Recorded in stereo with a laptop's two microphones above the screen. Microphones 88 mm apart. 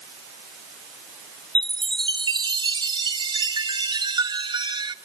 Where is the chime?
65° right (ahead or behind), 0.7 m.